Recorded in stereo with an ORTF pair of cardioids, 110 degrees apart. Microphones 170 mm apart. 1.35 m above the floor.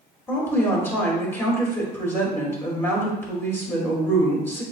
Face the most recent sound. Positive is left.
turn(degrees=15)